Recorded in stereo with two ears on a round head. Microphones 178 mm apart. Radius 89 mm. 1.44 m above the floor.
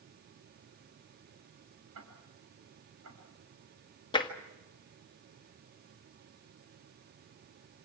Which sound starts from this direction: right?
Ticking, at 1.9 s.